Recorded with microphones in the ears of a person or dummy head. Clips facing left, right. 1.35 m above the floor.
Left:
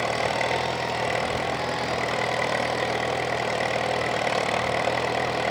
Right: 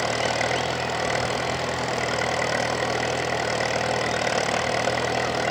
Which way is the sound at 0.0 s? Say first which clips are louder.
Right 1 dB; centre (ahead or behind).